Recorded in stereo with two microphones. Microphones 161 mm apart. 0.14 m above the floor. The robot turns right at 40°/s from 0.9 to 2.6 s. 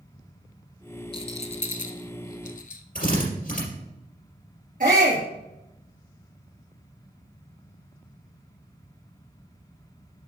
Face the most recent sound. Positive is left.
turn(degrees=-60)  # may be behind; listen again after turning